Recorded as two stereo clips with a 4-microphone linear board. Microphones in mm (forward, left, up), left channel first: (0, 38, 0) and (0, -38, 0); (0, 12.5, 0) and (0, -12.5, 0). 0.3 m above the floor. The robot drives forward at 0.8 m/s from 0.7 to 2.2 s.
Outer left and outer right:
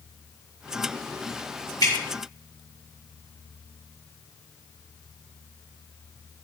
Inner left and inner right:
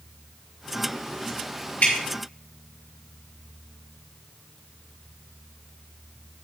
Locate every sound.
1.8 s dripping: 55° left (ahead or behind), 5.5 m